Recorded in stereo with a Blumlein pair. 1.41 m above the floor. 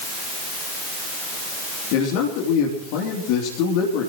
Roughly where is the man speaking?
Ahead left.